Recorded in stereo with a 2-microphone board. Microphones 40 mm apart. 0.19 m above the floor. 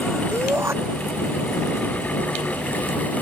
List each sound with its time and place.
0.3 s a shout: 80° right